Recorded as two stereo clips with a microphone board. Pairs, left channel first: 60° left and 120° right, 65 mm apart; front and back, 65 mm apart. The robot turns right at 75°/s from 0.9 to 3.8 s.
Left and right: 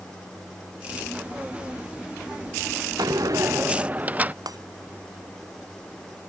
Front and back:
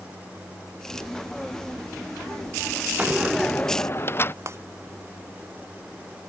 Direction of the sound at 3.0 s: 115° right.